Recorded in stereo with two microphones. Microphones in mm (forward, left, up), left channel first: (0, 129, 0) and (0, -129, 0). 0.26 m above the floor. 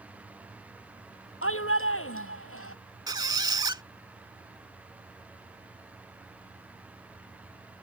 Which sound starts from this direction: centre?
A squeak, at 3.1 s.